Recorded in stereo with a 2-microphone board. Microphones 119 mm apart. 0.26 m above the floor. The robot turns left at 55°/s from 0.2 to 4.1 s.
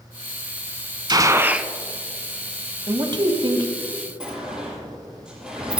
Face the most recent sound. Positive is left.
turn(degrees=-5)  # may be behind; listen again after turning